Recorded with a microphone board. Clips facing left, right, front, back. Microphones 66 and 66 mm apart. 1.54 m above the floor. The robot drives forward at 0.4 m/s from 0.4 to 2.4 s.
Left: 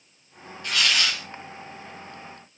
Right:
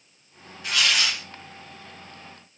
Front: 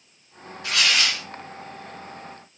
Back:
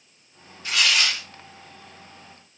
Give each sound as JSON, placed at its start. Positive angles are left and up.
{"t": 0.6, "sound": "tearing paper", "azimuth_deg": -10, "distance_m": 1.8}